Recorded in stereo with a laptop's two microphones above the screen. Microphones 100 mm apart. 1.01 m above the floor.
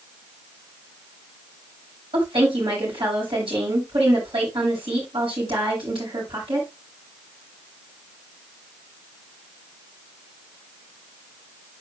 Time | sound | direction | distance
2.1 | a woman speaking | 65° right (ahead or behind) | 5 m